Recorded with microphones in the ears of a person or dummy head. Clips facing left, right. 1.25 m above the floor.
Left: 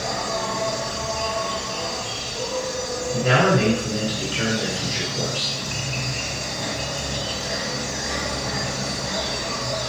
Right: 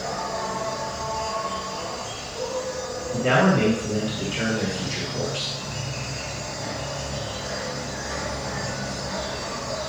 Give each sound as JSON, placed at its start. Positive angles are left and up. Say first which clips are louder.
{"t": 0.0, "sound": "an insect", "louder": "left 2 dB", "side_deg": 30, "distance_m": 0.9}
{"t": 3.1, "sound": "a man speaking", "louder": "left 1 dB", "side_deg": -60, "distance_m": 1.8}